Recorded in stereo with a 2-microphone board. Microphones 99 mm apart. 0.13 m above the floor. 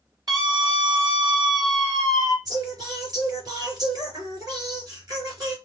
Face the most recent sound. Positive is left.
turn(degrees=-40)  # may be behind; listen again after turning